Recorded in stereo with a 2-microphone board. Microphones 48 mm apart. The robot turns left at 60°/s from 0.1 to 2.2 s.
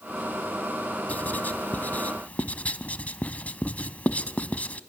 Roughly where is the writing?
Left.